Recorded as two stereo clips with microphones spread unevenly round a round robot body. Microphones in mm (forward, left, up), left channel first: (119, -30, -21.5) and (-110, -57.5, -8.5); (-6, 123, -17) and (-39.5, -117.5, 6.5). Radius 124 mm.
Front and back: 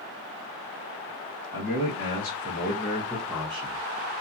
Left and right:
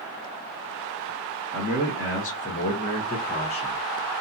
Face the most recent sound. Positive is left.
turn(degrees=145)